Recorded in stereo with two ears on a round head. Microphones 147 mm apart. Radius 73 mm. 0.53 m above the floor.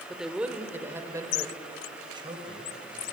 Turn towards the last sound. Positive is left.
turn(degrees=-35)  # may be behind; listen again after turning